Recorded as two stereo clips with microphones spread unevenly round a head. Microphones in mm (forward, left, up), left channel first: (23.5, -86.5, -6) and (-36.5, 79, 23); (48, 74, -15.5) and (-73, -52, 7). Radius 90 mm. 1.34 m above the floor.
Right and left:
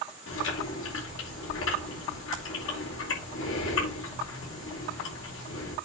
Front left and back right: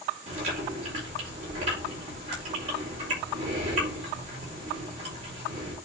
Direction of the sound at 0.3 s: 75° right.